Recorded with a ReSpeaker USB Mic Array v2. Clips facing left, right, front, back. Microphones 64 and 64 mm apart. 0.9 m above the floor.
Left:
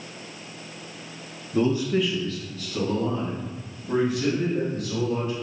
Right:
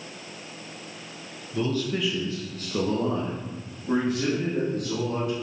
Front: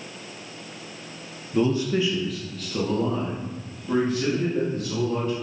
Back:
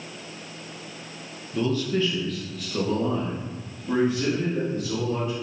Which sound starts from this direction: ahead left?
A man speaking, at 1.5 s.